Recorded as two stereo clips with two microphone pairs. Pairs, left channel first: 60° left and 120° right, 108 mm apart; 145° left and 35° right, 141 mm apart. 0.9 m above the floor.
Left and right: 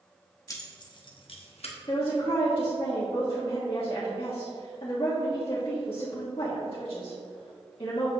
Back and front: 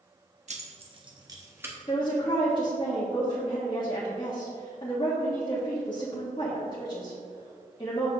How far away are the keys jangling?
About 1.0 m.